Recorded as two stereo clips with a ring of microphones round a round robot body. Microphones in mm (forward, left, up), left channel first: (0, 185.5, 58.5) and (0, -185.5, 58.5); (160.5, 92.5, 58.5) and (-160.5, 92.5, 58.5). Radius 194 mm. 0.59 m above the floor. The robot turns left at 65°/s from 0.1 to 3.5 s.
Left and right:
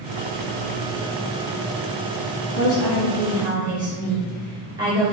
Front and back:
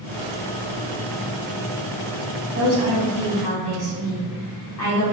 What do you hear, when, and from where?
2.5 s a woman speaking: 50° left, 1.7 m; by 5.1 s 15° right, 1.7 m